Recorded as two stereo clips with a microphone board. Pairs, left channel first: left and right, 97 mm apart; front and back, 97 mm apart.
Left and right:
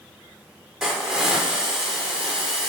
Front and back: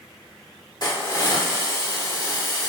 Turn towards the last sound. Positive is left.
turn(degrees=-10)